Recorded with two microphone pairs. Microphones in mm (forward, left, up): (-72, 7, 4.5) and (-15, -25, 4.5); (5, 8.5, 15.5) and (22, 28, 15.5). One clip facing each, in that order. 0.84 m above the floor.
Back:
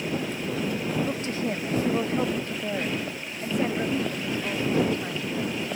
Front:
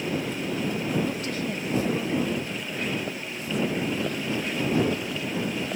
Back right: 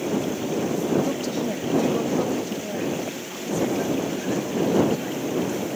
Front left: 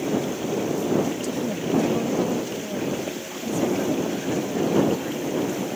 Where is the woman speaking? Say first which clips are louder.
Back 1 dB, back right 1 dB; 155° right; by 5.6 s 140° left.